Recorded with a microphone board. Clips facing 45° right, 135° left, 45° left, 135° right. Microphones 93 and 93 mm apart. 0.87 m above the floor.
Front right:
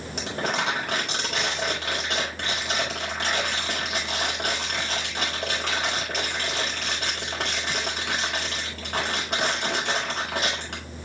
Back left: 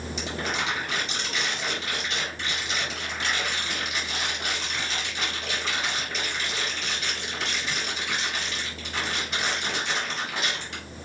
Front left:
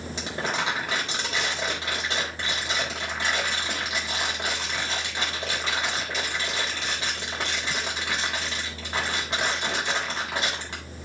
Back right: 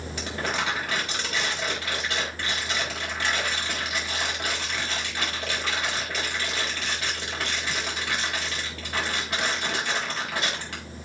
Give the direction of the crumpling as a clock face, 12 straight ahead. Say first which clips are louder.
Front right 4 dB, even; 1 o'clock.